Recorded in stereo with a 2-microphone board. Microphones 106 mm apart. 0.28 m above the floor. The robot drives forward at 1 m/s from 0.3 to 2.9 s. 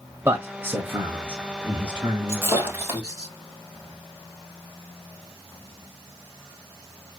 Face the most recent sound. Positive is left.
turn(degrees=-15)  # may be behind; listen again after turning